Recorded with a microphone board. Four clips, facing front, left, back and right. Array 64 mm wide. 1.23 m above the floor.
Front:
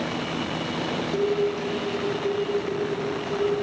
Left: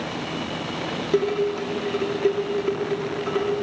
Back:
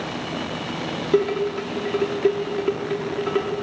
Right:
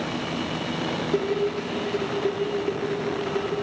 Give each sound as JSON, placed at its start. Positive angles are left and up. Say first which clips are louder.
{"t": 1.1, "sound": "dishes clattering", "louder": "left 4 dB, back 4 dB", "azimuth_deg": 160, "distance_m": 1.8}